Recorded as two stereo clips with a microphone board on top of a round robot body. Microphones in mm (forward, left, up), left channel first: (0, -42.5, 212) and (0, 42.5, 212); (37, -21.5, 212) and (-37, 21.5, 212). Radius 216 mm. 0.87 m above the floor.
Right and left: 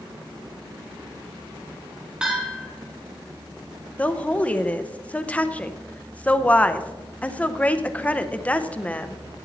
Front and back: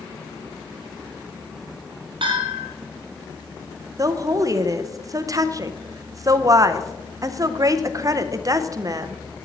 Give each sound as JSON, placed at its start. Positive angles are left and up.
{"t": 2.2, "sound": "a bell", "azimuth_deg": 170, "distance_m": 1.0}
{"t": 4.0, "sound": "a woman speaking", "azimuth_deg": -165, "distance_m": 0.8}